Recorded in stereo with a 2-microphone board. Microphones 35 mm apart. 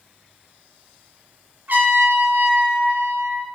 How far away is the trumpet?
About 0.8 m.